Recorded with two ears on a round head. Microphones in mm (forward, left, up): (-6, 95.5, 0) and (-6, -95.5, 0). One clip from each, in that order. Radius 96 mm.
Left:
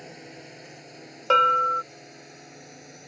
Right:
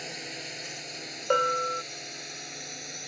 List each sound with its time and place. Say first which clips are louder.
0.0 s a drone: right 6 dB; 75° right (ahead or behind); by 3.1 s 80° right
1.3 s a bell: left 6 dB; 70° left (ahead or behind)